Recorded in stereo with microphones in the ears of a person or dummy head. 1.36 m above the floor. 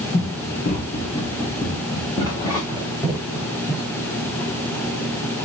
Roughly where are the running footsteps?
Left.